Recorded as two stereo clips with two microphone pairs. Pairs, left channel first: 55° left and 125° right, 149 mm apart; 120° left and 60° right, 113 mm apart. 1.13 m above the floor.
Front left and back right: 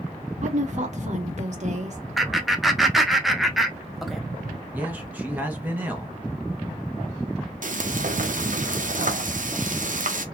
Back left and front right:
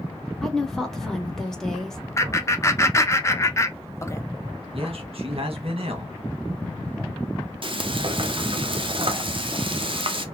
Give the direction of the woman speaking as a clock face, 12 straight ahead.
5 o'clock.